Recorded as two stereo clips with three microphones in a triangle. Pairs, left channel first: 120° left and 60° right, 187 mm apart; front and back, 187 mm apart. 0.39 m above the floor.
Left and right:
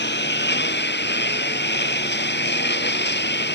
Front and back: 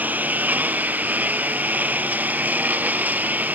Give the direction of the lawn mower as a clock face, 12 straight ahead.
9 o'clock.